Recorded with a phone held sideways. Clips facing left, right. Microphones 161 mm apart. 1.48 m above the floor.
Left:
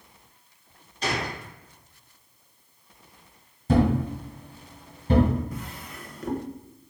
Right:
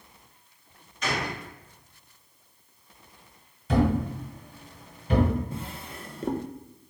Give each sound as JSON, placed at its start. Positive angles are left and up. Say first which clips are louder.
{"t": 1.0, "sound": "a gunshot", "louder": "left 1 dB", "side_deg": 30, "distance_m": 1.0}
{"t": 3.7, "sound": "a thud", "louder": "left 2 dB", "side_deg": 40, "distance_m": 2.0}
{"t": 5.5, "sound": "a drawer", "louder": "right 1 dB", "side_deg": -25, "distance_m": 0.6}